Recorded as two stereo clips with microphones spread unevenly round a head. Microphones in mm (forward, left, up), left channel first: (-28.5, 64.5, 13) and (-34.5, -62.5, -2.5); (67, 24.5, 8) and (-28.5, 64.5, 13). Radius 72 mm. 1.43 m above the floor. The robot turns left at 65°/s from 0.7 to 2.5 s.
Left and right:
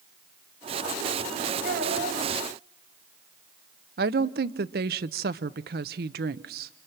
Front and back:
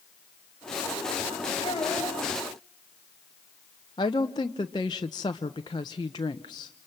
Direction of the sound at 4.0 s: 85° right.